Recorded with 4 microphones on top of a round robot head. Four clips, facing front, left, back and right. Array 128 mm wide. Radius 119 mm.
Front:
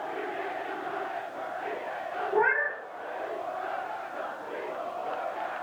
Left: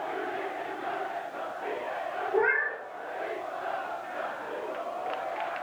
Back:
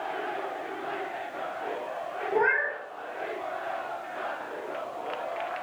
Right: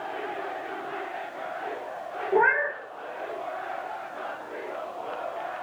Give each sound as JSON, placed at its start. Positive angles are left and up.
{"t": 2.3, "sound": "a cat meowing", "azimuth_deg": -115, "distance_m": 3.5}